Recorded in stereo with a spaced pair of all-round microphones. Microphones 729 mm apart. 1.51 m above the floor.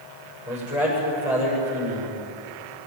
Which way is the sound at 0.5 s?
60° left (ahead or behind).